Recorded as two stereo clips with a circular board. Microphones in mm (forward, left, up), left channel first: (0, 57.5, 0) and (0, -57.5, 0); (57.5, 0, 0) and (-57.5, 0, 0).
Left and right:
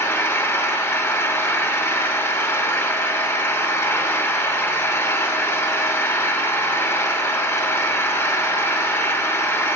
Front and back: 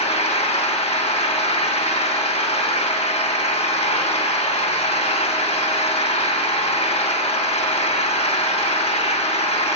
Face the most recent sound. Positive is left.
turn(degrees=20)